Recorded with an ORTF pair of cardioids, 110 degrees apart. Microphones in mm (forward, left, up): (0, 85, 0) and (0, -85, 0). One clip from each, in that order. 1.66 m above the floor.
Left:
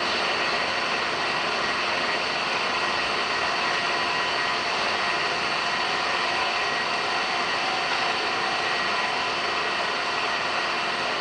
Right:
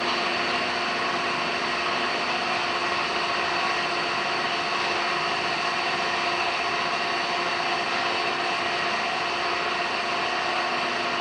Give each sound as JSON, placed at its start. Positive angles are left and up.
{"t": 0.0, "sound": "an engine running", "azimuth_deg": 50, "distance_m": 1.9}